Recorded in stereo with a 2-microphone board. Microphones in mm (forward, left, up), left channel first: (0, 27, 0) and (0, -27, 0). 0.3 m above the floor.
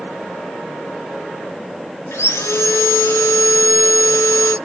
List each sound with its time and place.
2.1 s sawing: 60° left (ahead or behind), 2 m